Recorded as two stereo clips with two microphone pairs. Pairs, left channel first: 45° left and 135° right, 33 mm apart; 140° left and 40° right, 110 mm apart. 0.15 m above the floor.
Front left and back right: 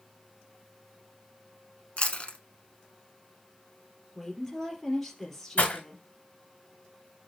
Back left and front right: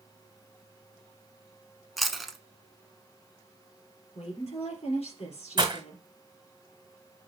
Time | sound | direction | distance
2.0 | chewing | 50° left | 1.1 m
4.2 | a woman speaking | 130° left | 3 m
5.6 | breaking glass | 10° left | 2.0 m